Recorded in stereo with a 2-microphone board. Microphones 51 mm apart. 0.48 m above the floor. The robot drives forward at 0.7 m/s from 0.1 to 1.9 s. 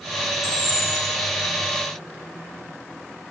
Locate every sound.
0.4 s a camera shutter: 65° left (ahead or behind), 3.5 m; by 1.1 s 60° left (ahead or behind), 3.5 m